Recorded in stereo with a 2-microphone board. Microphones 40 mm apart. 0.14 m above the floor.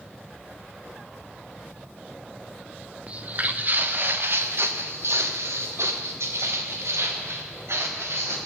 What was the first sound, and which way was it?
Footsteps, 30° right (ahead or behind).